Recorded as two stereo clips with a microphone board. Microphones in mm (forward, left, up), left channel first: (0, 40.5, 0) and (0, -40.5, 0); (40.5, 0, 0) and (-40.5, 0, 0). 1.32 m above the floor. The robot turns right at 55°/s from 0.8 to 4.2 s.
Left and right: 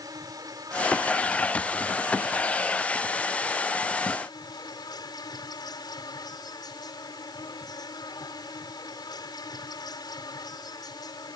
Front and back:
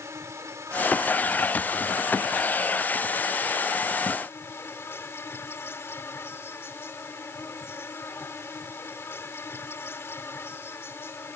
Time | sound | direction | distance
0.0 | an insect | 130° right | ?